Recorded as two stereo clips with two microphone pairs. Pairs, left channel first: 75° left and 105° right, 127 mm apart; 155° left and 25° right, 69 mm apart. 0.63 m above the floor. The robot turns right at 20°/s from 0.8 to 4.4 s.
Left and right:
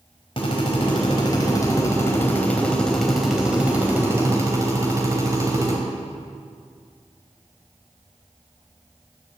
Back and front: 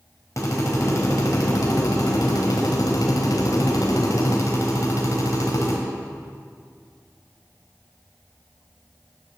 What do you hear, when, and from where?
0.4 s a drill: 115° left, 4 m; by 5.8 s 170° right, 4 m